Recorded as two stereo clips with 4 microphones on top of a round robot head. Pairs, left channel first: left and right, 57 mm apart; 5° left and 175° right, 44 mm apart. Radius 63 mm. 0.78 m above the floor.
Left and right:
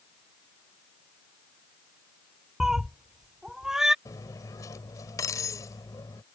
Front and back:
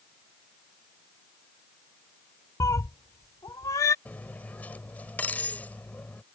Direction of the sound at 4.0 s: 60° left.